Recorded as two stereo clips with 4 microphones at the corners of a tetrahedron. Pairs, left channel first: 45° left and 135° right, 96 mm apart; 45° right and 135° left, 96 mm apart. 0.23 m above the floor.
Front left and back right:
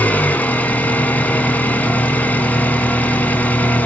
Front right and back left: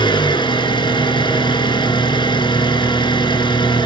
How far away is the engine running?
About 2.5 m.